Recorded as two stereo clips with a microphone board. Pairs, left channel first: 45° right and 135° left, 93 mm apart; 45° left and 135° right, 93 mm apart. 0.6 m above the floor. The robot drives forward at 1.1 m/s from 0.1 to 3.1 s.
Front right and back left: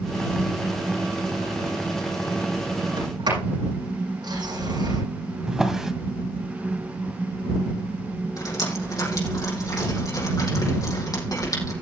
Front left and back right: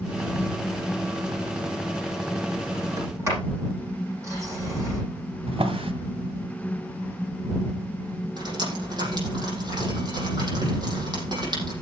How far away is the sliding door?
About 9 m.